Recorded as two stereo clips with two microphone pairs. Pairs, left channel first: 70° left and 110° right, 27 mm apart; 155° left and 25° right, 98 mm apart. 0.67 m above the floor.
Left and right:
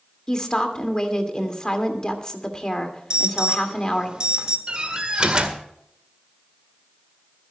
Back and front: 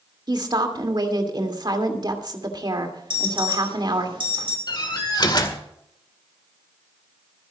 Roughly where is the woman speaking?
Ahead.